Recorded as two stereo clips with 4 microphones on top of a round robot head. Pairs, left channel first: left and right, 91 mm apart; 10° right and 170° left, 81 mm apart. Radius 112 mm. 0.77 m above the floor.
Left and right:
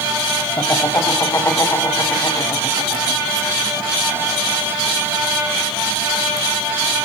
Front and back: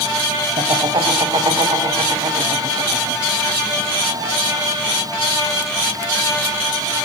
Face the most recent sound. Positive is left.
turn(degrees=150)